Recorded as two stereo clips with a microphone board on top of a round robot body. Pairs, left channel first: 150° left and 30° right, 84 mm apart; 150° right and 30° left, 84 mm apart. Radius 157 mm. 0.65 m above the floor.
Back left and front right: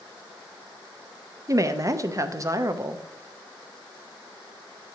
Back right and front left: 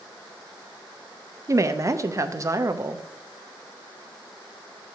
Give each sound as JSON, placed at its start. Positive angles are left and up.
{"t": 1.5, "sound": "a woman speaking", "azimuth_deg": 0, "distance_m": 0.8}